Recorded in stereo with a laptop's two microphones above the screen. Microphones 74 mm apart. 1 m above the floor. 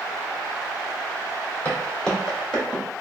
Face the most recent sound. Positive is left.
turn(degrees=-10)  # may be behind; listen again after turning